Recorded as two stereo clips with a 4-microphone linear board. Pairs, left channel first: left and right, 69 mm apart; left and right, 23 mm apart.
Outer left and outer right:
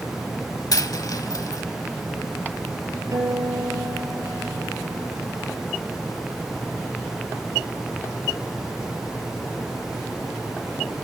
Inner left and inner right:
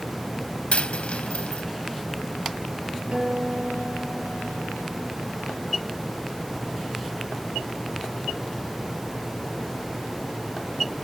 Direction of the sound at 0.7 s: 65° left (ahead or behind).